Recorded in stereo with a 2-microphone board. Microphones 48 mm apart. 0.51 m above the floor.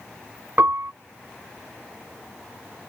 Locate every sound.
0.6 s a piano: 50° right (ahead or behind)